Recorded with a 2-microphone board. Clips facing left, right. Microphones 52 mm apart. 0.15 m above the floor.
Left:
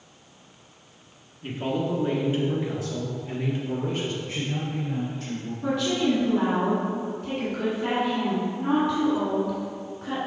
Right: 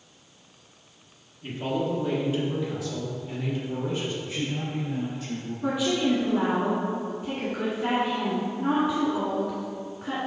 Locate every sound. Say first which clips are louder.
1.4 s a man speaking: left 1 dB; 10° left (ahead or behind), 1.7 m; by 4.1 s 50° left (ahead or behind), 2.5 m
4.2 s a man speaking: even; 50° left (ahead or behind), 1.9 m
5.6 s a woman speaking: left 1 dB; 10° right (ahead or behind), 1.7 m